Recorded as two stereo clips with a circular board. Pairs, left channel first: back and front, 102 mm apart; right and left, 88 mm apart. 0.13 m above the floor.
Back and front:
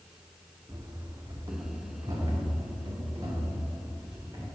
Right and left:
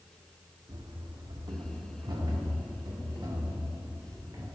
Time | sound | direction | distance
0.7 | running footsteps | 60° left | 0.9 m